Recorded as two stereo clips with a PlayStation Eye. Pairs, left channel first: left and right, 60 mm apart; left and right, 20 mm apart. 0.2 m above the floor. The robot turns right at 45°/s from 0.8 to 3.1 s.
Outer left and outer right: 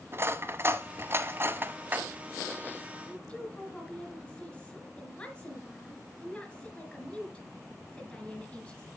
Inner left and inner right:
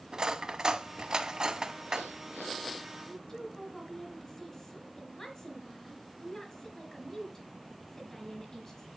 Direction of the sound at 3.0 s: 20° left (ahead or behind).